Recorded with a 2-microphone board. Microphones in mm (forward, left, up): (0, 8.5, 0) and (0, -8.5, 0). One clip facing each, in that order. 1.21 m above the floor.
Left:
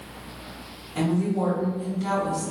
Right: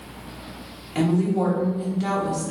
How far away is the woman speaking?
About 1.1 m.